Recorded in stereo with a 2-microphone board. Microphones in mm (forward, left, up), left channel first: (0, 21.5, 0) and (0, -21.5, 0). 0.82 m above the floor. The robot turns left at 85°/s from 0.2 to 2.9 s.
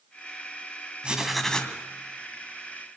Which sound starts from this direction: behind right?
Writing, at 1.0 s.